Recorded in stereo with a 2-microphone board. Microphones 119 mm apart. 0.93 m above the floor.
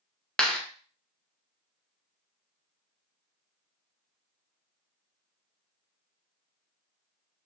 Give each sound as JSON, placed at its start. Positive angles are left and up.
{"t": 0.4, "sound": "a clap", "side_deg": 5, "distance_m": 0.6}